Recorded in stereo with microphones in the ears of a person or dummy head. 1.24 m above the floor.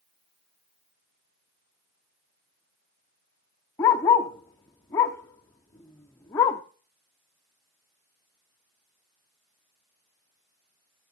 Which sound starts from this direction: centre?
A dog barking, at 3.8 s.